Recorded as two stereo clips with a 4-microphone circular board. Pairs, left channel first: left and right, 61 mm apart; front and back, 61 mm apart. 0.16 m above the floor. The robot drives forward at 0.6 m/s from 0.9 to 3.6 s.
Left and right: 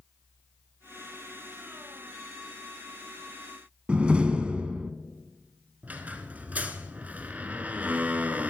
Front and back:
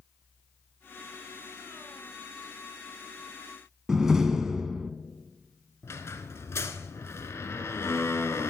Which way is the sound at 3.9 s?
120° right.